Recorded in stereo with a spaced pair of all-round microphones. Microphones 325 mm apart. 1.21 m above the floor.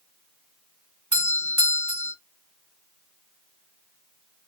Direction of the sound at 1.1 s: 60° right (ahead or behind).